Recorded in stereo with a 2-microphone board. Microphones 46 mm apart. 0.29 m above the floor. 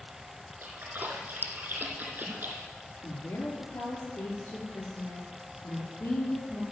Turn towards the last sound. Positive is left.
turn(degrees=50)  # may be behind; listen again after turning